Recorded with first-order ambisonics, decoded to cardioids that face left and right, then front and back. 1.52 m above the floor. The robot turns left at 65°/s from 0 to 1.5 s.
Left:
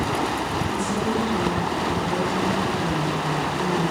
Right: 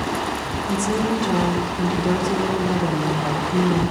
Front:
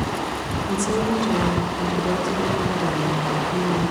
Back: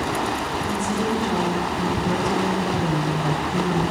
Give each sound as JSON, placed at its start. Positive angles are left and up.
{"t": 0.6, "sound": "a woman speaking", "azimuth_deg": -15, "distance_m": 5.5}